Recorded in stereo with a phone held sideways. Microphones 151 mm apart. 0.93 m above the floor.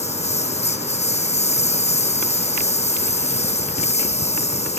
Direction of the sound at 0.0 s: 50° left (ahead or behind).